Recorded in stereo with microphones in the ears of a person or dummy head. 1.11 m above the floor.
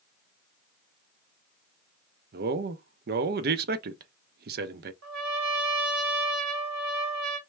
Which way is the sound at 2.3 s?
45° right (ahead or behind).